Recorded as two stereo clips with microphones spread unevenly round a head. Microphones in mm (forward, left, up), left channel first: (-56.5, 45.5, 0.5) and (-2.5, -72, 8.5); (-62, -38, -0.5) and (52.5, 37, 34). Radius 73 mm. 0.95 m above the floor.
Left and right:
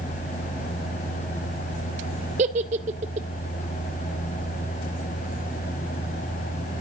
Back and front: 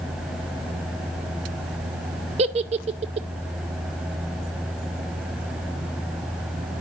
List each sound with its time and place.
2.4 s a giggle: 20° right, 0.6 m